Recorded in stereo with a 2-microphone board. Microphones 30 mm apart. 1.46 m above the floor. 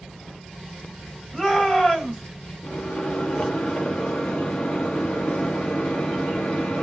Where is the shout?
25° left (ahead or behind), 2 m.